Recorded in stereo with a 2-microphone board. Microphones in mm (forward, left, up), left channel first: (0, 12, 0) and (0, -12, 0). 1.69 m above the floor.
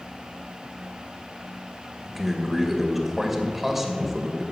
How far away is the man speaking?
About 2.0 m.